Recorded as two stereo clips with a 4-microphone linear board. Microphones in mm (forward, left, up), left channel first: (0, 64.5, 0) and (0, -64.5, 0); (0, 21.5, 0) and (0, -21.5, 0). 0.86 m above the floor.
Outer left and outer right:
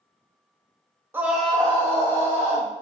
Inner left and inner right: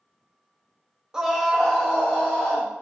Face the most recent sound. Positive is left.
turn(degrees=20)  # may be behind; listen again after turning